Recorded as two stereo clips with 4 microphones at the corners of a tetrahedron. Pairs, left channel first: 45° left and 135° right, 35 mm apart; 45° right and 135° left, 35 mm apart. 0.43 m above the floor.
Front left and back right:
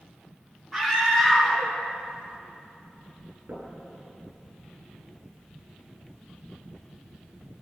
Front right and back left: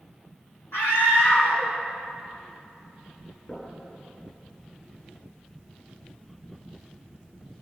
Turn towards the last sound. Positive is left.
turn(degrees=-110)